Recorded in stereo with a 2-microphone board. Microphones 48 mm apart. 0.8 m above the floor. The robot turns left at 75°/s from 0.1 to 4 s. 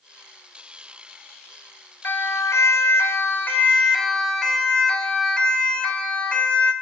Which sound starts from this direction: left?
A siren, at 2.0 s.